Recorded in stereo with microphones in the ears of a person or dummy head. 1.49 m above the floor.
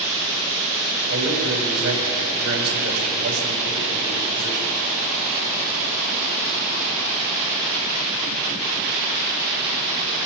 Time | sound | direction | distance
1.1 | a man speaking | 60° right (ahead or behind) | 6 m